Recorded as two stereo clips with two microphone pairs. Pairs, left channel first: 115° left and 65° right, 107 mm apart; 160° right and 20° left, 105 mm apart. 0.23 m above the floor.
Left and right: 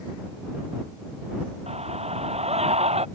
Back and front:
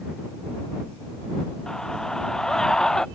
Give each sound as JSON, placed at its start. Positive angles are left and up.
{"t": 1.7, "sound": "a scream", "azimuth_deg": -75}